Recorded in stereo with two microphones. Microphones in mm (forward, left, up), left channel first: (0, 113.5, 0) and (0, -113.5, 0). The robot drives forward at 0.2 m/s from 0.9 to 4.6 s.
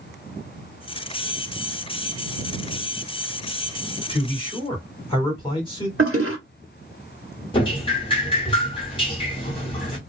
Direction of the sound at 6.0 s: 70° right (ahead or behind).